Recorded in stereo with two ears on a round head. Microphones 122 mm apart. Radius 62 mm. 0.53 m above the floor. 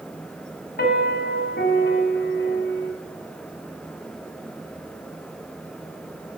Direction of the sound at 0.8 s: 80° left.